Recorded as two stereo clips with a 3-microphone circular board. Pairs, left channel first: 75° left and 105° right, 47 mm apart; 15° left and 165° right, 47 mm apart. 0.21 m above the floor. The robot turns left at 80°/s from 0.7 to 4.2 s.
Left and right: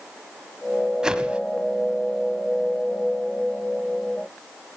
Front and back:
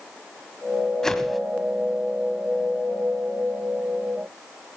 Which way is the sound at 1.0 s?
50° right.